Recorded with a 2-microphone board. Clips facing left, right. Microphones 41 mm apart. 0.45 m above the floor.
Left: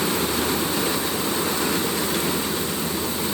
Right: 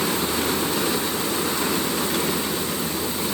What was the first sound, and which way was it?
Only background noise.